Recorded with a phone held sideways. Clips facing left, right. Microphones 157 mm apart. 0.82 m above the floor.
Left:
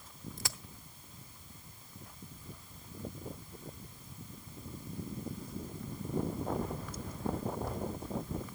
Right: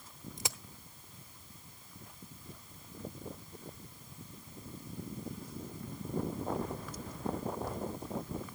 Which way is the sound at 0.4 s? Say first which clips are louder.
Right 4 dB; 20° right (ahead or behind).